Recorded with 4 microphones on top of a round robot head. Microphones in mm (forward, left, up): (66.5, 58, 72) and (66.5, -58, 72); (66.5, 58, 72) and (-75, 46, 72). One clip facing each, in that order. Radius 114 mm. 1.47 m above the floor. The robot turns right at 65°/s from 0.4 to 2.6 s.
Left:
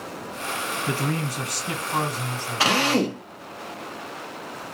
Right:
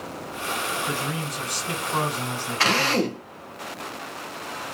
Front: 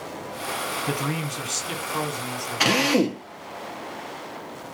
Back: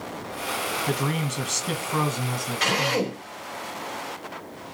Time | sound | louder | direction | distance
0.9 | a man speaking | left 2 dB, back 1 dB | 110° left | 1.1 m
2.6 | a drill | left 2 dB, front 5 dB | 10° left | 0.9 m